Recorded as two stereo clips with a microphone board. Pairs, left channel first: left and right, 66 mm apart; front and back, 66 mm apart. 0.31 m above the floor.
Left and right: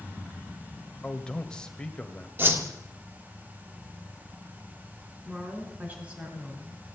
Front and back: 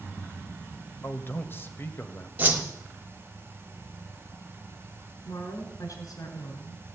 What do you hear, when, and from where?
1.0 s a man speaking: 25° left, 1.7 m
2.4 s a whoosh: 130° right, 1.9 m
5.2 s a woman speaking: 20° right, 4.5 m